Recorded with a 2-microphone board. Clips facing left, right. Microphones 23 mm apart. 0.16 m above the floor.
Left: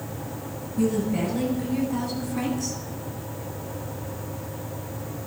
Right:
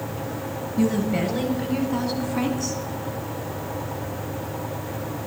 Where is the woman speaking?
45° right (ahead or behind), 3 m; by 2.8 s 15° right (ahead or behind), 1.4 m.